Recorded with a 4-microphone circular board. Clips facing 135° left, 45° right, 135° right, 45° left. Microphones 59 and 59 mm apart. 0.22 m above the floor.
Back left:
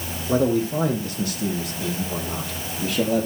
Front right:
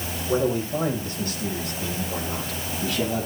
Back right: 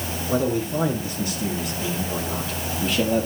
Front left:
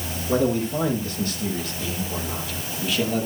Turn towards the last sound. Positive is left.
turn(degrees=165)